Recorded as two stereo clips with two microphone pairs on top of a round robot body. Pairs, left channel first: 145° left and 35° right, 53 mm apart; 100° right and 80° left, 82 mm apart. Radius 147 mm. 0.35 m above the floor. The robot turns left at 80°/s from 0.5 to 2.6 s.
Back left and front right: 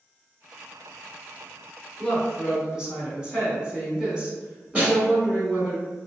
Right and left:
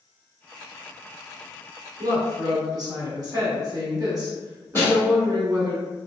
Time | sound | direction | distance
2.0 | a woman speaking | 100° left | 1.6 m
4.8 | a snare drum | 100° right | 1.6 m